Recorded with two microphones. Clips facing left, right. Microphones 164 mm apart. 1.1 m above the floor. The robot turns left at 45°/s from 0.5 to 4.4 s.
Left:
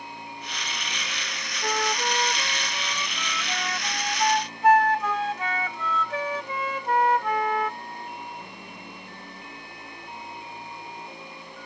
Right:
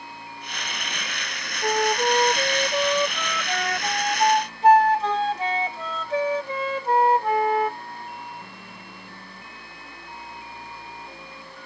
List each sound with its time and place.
1.6 s a flute: 25° right; by 7.8 s 150° right